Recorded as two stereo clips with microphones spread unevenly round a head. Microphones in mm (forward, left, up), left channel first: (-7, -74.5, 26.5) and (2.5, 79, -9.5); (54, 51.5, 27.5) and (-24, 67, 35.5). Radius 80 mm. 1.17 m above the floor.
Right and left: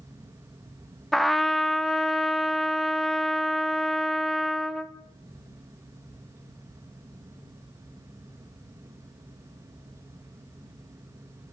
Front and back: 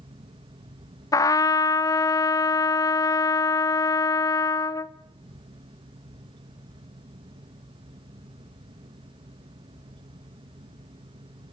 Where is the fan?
155° left, 1.4 m.